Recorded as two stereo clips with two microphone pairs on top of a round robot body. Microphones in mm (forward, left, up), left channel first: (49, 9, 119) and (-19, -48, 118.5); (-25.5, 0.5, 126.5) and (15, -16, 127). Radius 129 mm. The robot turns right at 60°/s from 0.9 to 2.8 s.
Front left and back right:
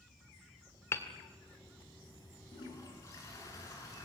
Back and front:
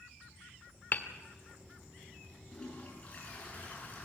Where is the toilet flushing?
80° left, 7 m; by 4.0 s 95° left, 7 m.